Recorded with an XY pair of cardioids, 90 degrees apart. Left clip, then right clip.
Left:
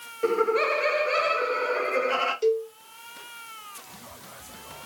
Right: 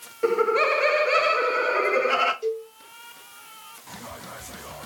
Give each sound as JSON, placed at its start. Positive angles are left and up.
{"t": 0.2, "sound": "laughter", "azimuth_deg": -10, "distance_m": 0.7}
{"t": 2.4, "sound": "a cowbell", "azimuth_deg": 65, "distance_m": 0.9}